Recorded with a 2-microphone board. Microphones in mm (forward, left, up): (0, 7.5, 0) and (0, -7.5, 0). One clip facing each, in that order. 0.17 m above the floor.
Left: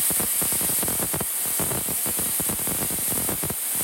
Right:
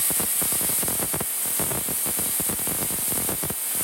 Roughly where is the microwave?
I don't hear a microwave.